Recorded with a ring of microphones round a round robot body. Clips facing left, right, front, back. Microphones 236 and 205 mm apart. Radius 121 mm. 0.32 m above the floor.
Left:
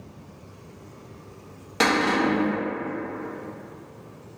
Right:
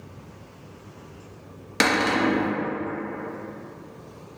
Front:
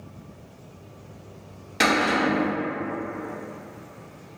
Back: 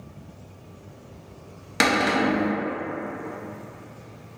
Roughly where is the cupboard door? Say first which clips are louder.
Even, back 1 dB; behind right.